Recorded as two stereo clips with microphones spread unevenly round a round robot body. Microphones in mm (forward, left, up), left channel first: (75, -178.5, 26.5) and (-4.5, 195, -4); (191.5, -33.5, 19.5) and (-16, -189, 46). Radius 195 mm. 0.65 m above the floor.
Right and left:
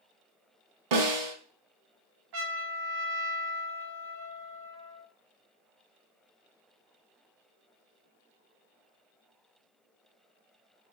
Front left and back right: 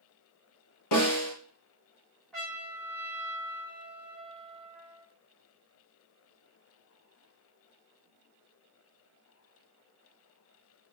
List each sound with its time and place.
0.9 s a snare drum: 75° left, 1.7 m
2.3 s a trumpet: 120° left, 1.1 m